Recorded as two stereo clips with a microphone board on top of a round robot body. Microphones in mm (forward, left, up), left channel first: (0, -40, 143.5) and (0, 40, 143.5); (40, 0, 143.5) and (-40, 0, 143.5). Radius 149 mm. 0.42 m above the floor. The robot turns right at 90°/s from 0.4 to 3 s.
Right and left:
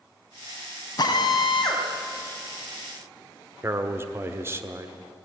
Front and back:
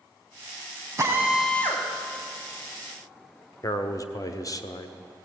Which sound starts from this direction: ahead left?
A man speaking, at 3.6 s.